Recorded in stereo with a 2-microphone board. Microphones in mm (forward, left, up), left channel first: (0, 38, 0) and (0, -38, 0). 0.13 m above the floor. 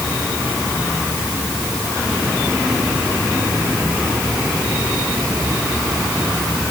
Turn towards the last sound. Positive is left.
No sound to turn to.